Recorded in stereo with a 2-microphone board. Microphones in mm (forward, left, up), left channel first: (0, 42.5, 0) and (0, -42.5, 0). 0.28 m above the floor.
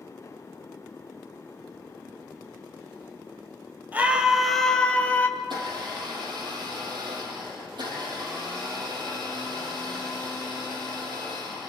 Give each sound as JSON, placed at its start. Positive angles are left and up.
{"t": 3.9, "sound": "a scream", "side_deg": -20, "distance_m": 1.6}
{"t": 5.4, "sound": "a blender", "side_deg": -70, "distance_m": 6.0}